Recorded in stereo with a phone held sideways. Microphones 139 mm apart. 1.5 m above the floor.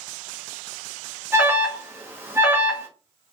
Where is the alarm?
15° right (ahead or behind), 1.0 m.